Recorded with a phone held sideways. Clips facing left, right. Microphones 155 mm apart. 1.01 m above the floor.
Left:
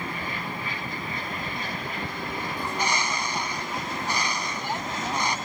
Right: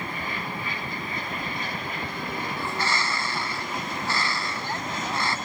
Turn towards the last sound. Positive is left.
turn(degrees=15)  # may be behind; listen again after turning